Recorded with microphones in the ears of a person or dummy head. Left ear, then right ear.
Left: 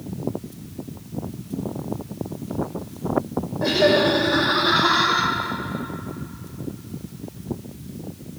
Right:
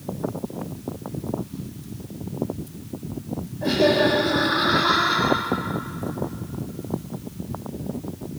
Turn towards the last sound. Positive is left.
turn(degrees=25)  # may be behind; listen again after turning